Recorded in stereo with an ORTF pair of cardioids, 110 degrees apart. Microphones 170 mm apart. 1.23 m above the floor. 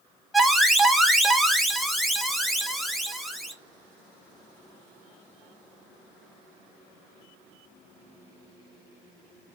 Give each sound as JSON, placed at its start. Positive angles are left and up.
{"t": 0.3, "sound": "an alarm", "azimuth_deg": 0, "distance_m": 0.7}